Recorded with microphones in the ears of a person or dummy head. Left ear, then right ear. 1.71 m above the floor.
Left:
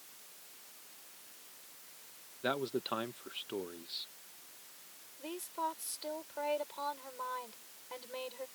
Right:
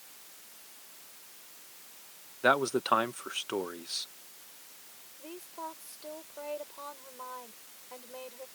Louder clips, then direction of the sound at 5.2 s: Left 4 dB; 40° left (ahead or behind).